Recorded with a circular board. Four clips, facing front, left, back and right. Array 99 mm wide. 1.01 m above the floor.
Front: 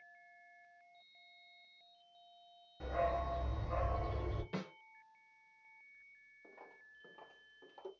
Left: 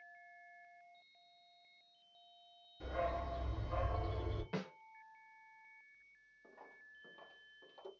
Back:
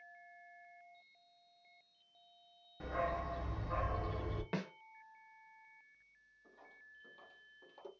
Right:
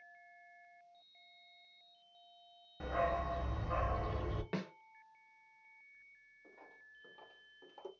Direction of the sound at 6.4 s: 20° left.